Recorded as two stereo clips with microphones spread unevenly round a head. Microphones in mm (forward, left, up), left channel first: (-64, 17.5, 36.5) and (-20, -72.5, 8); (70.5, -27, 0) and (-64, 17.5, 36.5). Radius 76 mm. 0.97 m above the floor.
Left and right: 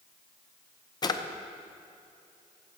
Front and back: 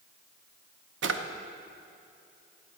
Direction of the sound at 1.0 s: 165° left.